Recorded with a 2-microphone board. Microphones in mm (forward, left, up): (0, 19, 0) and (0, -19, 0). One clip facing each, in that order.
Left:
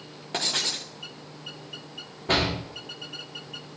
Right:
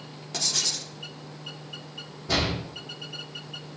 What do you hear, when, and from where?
0.3 s writing: 30° left (ahead or behind), 0.9 m
2.3 s a door slam: 40° left (ahead or behind), 2.5 m